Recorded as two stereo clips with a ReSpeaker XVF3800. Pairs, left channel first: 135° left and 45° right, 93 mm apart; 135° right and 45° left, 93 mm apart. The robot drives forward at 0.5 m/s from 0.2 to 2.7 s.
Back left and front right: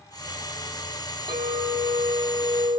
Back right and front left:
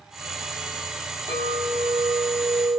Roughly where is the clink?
Ahead.